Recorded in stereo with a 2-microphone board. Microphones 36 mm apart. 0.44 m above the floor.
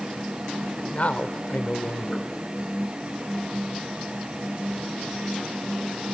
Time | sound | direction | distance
0.9 | a man speaking | 50° left (ahead or behind) | 1.3 m